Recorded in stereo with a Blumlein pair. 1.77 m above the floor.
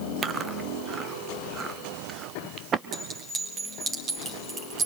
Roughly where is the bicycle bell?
No bicycle bell in this recording.